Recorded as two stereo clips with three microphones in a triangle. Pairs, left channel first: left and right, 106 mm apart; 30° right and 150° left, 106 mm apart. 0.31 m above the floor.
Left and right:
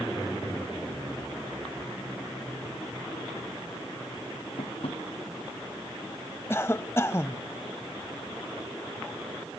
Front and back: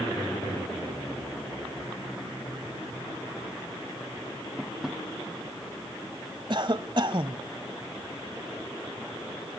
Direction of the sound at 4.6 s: 65° left.